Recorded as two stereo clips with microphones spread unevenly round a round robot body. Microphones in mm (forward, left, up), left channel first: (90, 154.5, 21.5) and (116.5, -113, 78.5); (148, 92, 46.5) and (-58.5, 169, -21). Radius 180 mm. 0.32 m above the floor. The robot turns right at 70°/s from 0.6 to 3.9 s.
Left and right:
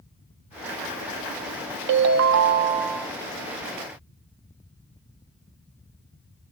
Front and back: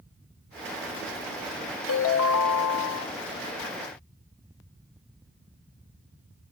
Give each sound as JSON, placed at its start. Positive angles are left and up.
{"t": 1.9, "sound": "a ringtone", "azimuth_deg": -65, "distance_m": 0.6}